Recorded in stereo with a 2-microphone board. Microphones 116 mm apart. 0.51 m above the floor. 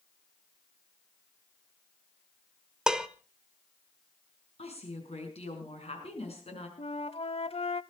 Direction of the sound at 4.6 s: 65° left (ahead or behind).